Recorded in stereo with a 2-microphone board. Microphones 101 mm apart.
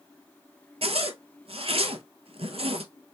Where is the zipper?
70° right (ahead or behind), 0.7 m.